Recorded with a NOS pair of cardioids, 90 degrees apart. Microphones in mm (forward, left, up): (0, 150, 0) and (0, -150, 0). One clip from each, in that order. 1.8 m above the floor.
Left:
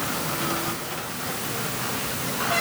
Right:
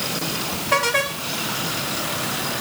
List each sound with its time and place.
Only background noise.